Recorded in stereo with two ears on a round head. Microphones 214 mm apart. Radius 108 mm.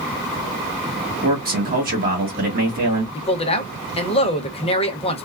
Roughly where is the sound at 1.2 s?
Right.